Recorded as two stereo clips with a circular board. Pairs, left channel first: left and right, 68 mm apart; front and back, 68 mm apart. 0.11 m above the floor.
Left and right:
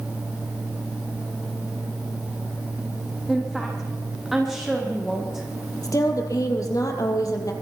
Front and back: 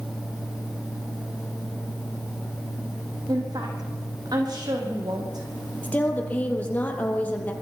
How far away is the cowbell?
I don't hear a cowbell.